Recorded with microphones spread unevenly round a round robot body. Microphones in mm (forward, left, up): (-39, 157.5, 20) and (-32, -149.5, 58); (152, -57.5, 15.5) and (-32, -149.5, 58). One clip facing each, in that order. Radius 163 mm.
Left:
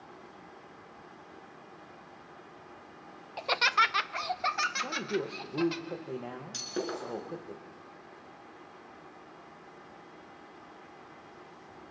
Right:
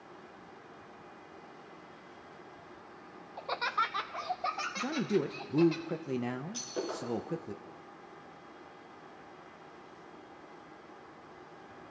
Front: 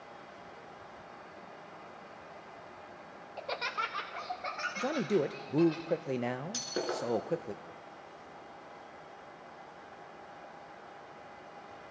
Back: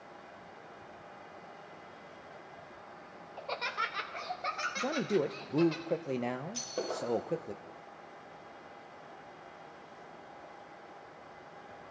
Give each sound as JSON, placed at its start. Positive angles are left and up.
{"t": 3.4, "sound": "laughter", "azimuth_deg": 80, "distance_m": 0.5}
{"t": 4.8, "sound": "a man speaking", "azimuth_deg": -50, "distance_m": 0.8}
{"t": 6.5, "sound": "breaking glass", "azimuth_deg": 40, "distance_m": 5.0}